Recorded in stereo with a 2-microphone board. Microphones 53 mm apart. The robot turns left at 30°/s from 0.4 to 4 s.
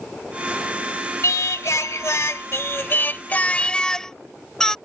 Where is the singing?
95° left; by 4.8 s 15° left.